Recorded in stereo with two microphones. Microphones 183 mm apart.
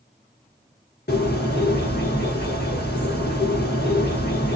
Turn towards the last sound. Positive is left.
turn(degrees=60)  # may be behind; listen again after turning